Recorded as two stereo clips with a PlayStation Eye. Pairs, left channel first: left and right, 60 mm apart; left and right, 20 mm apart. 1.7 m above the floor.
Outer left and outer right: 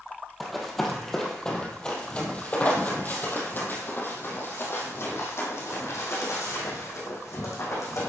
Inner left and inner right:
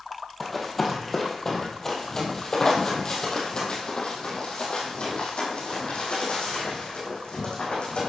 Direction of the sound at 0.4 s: Centre (ahead or behind).